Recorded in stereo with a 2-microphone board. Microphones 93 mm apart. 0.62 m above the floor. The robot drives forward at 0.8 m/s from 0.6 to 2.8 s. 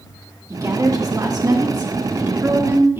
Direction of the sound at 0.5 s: 35° right (ahead or behind).